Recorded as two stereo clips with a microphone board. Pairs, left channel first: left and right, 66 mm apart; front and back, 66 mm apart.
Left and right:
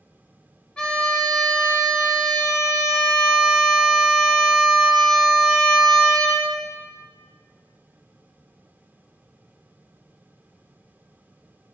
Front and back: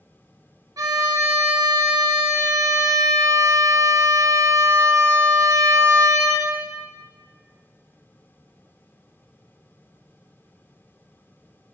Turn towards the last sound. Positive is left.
turn(degrees=165)